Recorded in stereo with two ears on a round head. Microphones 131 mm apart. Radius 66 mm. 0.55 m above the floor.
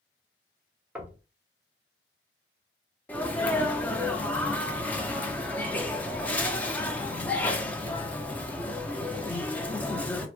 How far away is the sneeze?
About 0.7 m.